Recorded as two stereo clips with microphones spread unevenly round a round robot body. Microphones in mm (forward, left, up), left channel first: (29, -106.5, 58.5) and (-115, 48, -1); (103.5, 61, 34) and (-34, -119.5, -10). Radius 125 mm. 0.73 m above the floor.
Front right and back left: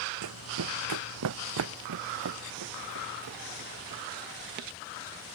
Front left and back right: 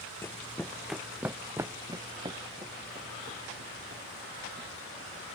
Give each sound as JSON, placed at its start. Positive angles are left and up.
{"t": 0.2, "sound": "running footsteps", "azimuth_deg": 130}